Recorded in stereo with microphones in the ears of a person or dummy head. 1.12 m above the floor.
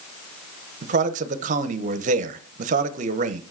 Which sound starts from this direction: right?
A man speaking, at 0.8 s.